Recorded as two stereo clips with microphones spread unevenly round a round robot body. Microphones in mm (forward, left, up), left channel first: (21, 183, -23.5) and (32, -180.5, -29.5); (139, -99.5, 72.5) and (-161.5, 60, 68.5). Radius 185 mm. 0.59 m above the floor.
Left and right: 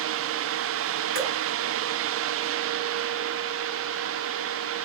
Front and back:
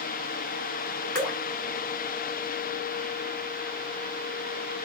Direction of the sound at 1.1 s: 115° right.